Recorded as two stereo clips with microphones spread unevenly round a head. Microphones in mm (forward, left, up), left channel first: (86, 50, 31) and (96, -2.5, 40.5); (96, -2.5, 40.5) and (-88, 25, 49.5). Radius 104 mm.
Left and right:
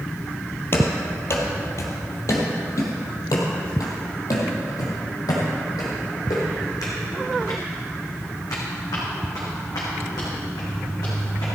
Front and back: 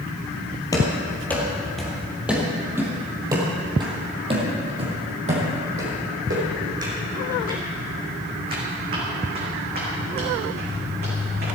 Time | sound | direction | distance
0.7 | running footsteps | 60° left | 2 m